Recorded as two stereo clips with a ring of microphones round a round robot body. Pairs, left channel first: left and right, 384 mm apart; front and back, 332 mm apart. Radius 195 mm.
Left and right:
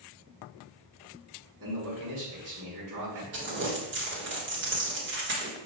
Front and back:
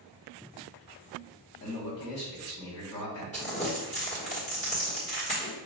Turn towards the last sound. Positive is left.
turn(degrees=-55)